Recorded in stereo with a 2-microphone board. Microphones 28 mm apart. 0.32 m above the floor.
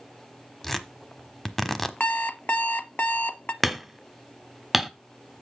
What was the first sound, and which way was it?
Tearing paper, 10° left (ahead or behind).